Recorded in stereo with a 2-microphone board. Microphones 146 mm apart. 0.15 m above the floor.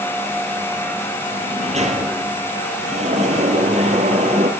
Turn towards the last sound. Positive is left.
turn(degrees=-55)  # may be behind; listen again after turning